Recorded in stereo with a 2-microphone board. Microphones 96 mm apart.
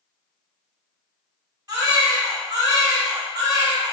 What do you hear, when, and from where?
1.7 s a baby crying: 45° right (ahead or behind), 1.3 m